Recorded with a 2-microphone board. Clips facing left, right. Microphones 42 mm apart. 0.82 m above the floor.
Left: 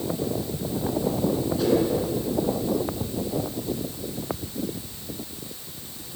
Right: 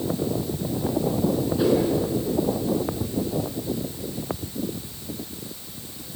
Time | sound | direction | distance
1.6 | a whoosh | 15° right (ahead or behind) | 5.5 m